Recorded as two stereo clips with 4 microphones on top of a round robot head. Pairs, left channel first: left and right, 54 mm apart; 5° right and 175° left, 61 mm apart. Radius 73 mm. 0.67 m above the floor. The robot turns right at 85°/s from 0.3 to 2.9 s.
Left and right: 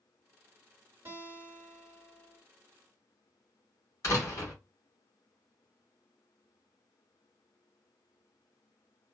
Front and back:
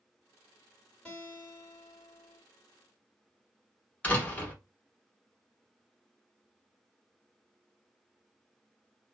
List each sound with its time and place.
1.1 s a guitar: 75° right, 2 m; by 2.4 s 40° left, 2 m
4.0 s a door slam: 60° left, 1.3 m